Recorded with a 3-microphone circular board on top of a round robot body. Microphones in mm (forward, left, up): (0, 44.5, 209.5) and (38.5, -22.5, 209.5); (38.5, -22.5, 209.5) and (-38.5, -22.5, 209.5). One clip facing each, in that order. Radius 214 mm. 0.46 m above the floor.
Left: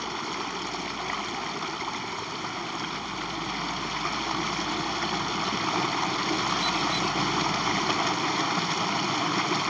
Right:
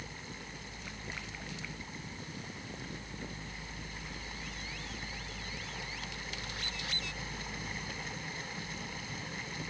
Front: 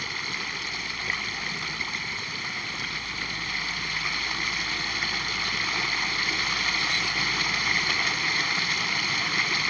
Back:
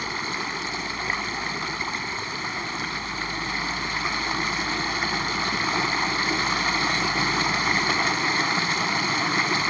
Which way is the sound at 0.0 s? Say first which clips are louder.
Left 15 dB, back 5 dB; 115° left.